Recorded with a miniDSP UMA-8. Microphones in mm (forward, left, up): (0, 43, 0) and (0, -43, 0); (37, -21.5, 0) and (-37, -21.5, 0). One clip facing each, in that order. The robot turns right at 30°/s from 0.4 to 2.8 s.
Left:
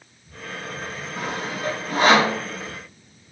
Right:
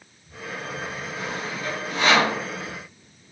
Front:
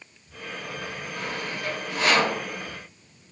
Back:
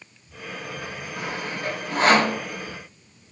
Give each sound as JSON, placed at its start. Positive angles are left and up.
{"t": 1.2, "sound": "sawing", "azimuth_deg": 105, "distance_m": 0.9}